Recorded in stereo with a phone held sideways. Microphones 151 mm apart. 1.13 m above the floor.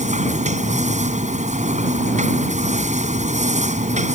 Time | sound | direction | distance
0.0 | a machine running | 50° right (ahead or behind) | ?